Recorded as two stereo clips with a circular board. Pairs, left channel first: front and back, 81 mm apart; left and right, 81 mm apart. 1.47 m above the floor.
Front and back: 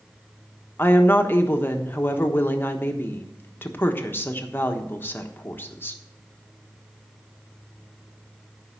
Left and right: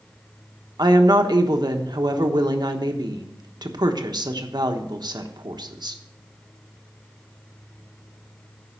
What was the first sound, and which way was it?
A woman speaking, 65° right.